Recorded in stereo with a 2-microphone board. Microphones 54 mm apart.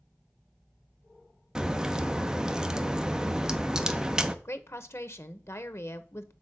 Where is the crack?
10° right (ahead or behind), 0.6 m.